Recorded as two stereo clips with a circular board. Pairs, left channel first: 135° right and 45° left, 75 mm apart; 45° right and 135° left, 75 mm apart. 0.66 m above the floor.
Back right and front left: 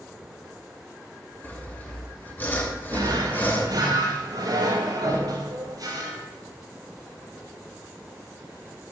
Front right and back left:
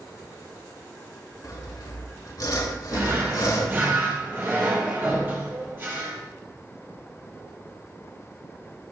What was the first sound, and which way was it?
Sawing, 75° right.